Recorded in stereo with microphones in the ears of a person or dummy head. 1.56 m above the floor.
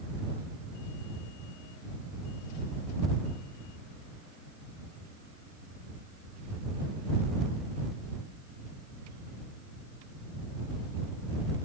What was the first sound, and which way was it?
Only background noise.